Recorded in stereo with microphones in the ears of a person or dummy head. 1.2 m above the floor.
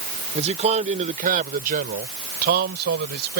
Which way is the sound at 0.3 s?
35° right (ahead or behind).